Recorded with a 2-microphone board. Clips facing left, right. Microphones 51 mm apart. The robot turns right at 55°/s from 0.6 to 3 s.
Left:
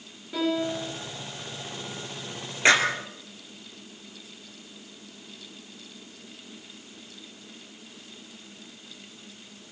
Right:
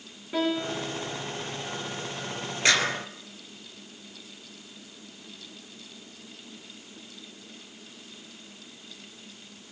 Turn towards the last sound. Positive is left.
turn(degrees=30)  # may be behind; listen again after turning